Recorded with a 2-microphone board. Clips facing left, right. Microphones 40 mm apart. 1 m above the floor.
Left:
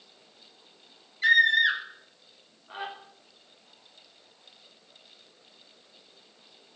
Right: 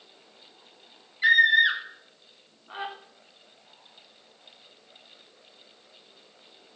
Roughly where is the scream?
Centre.